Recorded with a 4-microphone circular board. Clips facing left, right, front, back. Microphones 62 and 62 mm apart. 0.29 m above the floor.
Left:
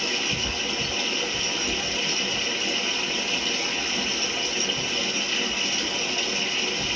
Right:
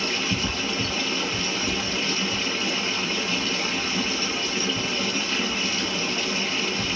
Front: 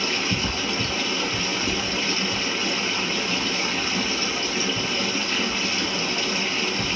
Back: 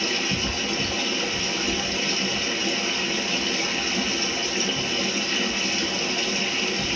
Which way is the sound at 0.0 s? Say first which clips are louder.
Right 2 dB, front 1 dB; 45° right.